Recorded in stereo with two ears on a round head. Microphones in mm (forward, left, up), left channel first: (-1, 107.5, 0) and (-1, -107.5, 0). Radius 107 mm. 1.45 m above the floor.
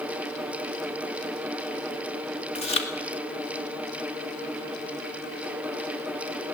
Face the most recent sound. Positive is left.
turn(degrees=25)  # may be behind; listen again after turning